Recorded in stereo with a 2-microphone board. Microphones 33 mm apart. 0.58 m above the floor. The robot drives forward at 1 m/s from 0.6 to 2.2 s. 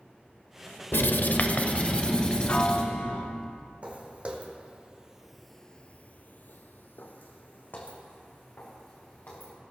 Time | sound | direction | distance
0.9 | writing | 80° left | 0.7 m
2.5 | a piano | 35° left (ahead or behind) | 0.6 m
3.8 | footsteps | 35° right (ahead or behind) | 2 m